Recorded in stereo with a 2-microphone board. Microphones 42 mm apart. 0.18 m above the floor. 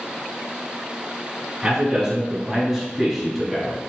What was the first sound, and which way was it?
A man speaking, 15° right (ahead or behind).